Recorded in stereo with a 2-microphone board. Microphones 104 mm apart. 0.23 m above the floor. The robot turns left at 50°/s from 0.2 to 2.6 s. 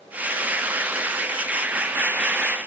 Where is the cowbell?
No cowbell in this recording.